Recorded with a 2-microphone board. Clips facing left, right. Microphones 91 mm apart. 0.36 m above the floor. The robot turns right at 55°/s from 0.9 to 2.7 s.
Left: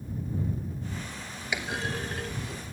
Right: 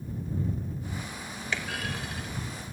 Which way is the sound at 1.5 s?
10° left (ahead or behind).